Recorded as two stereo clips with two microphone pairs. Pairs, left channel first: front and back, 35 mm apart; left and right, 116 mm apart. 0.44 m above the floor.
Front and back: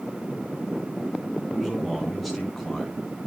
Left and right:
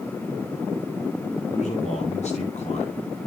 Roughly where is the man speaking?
Left.